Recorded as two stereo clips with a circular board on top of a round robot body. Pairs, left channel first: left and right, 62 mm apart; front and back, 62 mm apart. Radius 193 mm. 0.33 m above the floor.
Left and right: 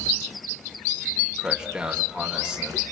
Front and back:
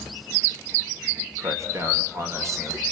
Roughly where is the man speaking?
Behind.